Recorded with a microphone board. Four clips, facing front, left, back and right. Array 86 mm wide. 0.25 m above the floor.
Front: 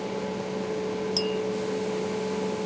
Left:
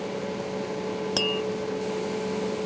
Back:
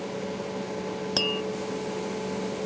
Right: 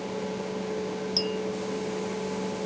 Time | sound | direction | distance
1.2 | tapping | 130° left | ?